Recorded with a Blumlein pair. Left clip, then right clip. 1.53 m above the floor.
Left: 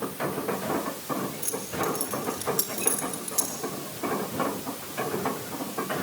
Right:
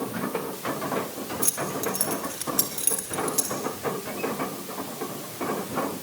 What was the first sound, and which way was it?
Keys jangling, 25° right.